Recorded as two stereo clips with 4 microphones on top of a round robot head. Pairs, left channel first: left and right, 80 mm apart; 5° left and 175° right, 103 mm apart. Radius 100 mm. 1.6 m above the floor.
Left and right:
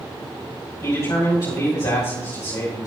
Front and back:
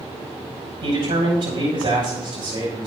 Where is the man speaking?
145° left, 7 m.